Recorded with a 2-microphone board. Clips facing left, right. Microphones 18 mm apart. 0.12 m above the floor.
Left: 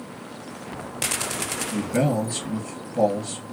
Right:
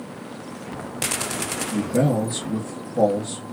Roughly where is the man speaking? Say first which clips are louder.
Right 2 dB; left.